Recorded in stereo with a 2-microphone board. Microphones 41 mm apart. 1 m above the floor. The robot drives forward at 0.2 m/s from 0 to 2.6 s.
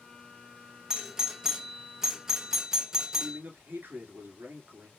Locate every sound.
0.9 s a doorbell: 15° right (ahead or behind), 0.5 m; by 3.4 s 10° right (ahead or behind), 0.7 m
3.2 s a man speaking: 65° right (ahead or behind), 2 m